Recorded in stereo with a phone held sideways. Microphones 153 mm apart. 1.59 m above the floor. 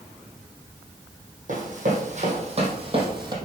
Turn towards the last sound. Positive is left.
turn(degrees=-30)  # may be behind; listen again after turning